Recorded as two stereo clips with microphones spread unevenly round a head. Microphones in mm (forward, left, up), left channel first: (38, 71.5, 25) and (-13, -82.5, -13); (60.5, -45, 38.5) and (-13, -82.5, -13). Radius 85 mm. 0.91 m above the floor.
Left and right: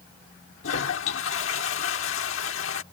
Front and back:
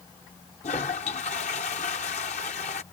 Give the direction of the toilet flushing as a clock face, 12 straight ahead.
10 o'clock.